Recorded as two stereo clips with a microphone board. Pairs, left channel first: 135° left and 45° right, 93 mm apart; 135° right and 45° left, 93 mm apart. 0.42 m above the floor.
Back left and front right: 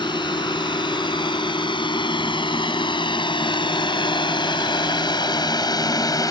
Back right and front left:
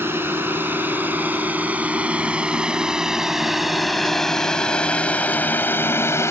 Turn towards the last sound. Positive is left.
turn(degrees=170)